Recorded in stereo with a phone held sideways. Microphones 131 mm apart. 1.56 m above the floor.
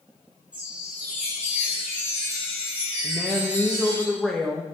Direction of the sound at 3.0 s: 5° left (ahead or behind).